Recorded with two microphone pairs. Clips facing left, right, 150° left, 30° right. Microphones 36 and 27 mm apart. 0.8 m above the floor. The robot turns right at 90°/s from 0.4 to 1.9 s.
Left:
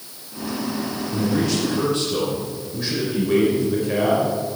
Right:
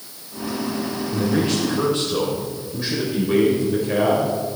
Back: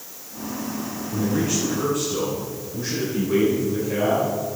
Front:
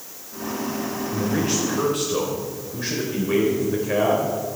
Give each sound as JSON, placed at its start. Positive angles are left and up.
{"t": 1.1, "sound": "a man speaking", "azimuth_deg": -75, "distance_m": 3.0}